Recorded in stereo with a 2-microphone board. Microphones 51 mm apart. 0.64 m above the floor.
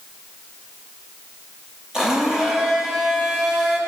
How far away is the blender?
About 8.5 m.